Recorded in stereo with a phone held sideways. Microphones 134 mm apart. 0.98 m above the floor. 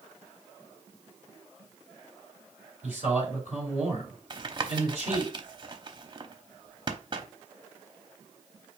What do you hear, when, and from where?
2.8 s a man speaking: 60° left (ahead or behind), 3.5 m
4.3 s tapping: 35° right (ahead or behind), 0.7 m